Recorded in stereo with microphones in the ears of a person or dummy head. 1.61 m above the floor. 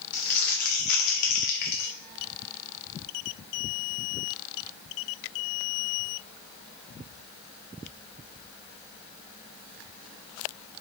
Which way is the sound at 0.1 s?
50° left (ahead or behind).